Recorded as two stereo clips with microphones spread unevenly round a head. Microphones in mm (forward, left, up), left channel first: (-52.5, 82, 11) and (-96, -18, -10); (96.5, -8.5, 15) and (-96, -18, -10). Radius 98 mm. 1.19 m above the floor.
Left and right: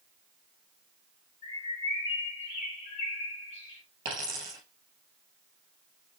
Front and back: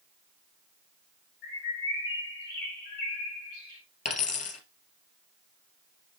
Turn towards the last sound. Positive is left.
turn(degrees=-45)